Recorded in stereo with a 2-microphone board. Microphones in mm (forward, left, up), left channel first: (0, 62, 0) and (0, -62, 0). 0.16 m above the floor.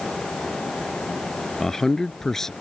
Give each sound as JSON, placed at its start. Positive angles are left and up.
{"t": 1.6, "sound": "a man speaking", "side_deg": 5}